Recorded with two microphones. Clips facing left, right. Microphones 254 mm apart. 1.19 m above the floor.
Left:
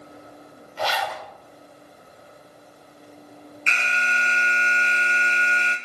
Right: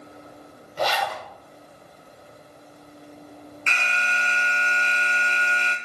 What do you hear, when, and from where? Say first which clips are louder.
0.8 s a zipper: right 2 dB; 40° right (ahead or behind), 4.5 m
3.7 s an alarm: left 1 dB; 20° left (ahead or behind), 1.7 m